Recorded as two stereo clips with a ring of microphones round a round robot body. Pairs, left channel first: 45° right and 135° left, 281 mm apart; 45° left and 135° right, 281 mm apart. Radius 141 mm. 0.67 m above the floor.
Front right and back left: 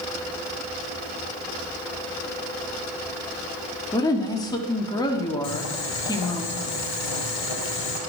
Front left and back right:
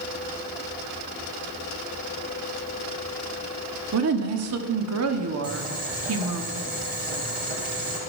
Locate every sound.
3.9 s a woman speaking: 120° right, 1.6 m
5.4 s boiling: 70° right, 4 m